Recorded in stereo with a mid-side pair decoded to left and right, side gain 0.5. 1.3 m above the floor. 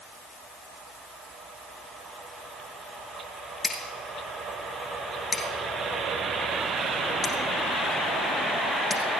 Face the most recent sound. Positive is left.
turn(degrees=35)